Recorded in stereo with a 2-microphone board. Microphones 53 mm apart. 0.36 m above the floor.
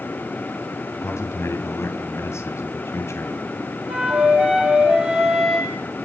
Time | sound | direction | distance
1.0 | a man speaking | 65° left (ahead or behind) | 2.5 m
3.9 | a flute | 10° right (ahead or behind) | 8 m